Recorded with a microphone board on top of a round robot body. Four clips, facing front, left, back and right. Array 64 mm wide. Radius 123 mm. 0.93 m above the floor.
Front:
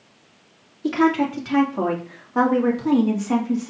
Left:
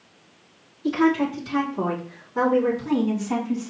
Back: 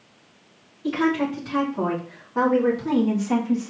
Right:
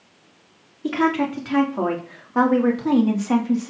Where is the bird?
No bird in this recording.